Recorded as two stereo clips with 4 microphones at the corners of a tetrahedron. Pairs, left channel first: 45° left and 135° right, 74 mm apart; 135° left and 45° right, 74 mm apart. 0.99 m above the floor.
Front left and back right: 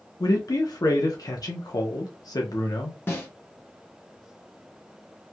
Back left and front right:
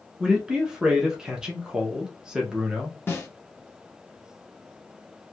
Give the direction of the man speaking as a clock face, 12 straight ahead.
11 o'clock.